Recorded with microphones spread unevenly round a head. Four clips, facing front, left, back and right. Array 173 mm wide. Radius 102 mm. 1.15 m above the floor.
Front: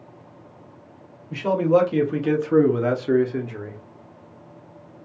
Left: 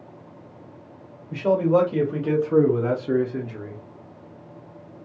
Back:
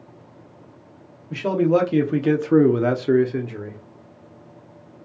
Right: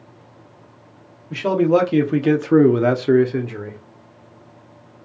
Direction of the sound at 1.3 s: 165° right.